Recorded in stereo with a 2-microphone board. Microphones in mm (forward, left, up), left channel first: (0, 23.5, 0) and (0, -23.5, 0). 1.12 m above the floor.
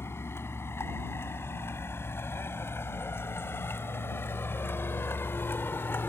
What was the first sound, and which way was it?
A vehicle, 70° left (ahead or behind).